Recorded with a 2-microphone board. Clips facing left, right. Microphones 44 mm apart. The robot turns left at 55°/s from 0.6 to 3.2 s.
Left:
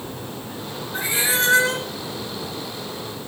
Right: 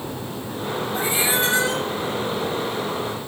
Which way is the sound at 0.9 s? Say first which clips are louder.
Left 1 dB; 140° left.